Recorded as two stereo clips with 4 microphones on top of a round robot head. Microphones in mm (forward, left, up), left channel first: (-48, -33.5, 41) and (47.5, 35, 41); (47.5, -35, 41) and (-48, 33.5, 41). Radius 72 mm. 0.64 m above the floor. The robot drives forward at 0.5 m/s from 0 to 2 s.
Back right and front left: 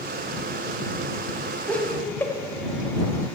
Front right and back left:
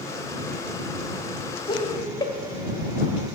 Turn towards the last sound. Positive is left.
turn(degrees=-80)